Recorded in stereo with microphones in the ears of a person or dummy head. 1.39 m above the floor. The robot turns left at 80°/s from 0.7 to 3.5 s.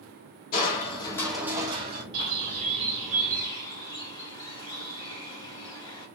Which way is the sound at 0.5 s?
50° left.